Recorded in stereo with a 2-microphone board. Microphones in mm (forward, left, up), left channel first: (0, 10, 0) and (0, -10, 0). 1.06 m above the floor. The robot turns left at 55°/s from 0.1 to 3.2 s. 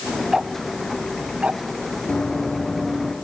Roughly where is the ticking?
Right.